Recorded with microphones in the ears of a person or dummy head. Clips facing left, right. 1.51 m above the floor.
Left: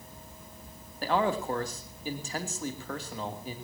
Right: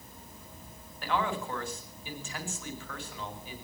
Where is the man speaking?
30° left (ahead or behind), 3 m.